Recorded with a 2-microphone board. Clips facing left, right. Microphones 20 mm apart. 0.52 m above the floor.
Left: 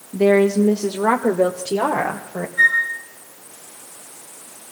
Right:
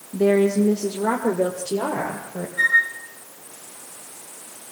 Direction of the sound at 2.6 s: 10° left (ahead or behind).